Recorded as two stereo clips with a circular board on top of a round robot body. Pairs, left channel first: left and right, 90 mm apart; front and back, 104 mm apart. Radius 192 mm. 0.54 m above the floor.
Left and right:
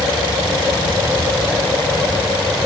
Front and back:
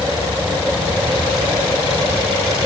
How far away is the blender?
I don't hear a blender.